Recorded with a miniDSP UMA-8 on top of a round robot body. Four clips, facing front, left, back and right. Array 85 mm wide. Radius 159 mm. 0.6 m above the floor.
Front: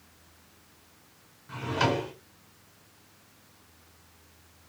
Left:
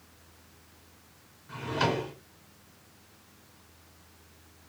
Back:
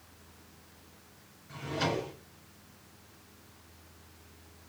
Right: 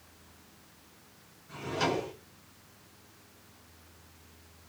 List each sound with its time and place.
1.5 s a drawer: 15° left, 3.5 m